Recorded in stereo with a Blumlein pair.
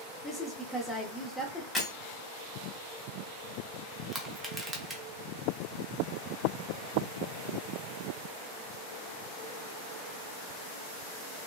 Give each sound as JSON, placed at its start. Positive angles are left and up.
{"t": 0.2, "sound": "a woman speaking", "azimuth_deg": 15, "distance_m": 0.8}
{"t": 1.8, "sound": "breaking glass", "azimuth_deg": 5, "distance_m": 1.3}
{"t": 4.1, "sound": "crushing", "azimuth_deg": -10, "distance_m": 0.7}